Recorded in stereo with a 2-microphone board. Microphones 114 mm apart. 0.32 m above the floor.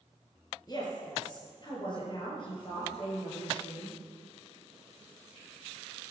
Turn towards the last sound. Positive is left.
turn(degrees=45)  # may be behind; listen again after turning